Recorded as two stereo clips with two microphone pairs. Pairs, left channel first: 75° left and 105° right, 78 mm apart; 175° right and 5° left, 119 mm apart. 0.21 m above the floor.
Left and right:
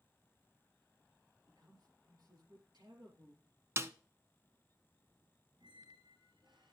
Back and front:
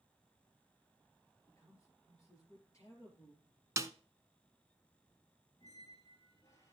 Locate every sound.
1.5 s a man speaking: 115° right, 3.5 m
3.8 s a snare drum: 55° right, 0.6 m
5.6 s a squeak: 115° right, 2 m